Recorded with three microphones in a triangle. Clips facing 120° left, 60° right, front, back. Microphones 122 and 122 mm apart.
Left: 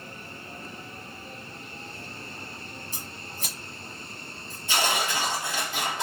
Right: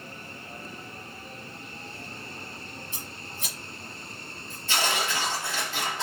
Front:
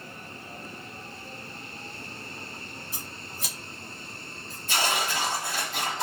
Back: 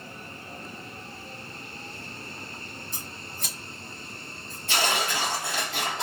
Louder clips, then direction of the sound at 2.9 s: Left 1 dB, even; 85° left.